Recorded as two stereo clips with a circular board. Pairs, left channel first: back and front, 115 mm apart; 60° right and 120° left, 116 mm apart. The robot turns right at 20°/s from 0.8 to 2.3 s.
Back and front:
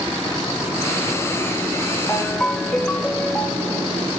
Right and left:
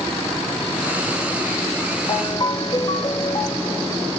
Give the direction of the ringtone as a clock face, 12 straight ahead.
4 o'clock.